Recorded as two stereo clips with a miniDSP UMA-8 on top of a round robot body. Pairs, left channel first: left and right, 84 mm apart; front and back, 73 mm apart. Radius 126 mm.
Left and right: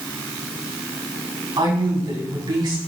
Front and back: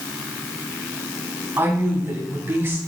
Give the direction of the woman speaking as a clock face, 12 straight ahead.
4 o'clock.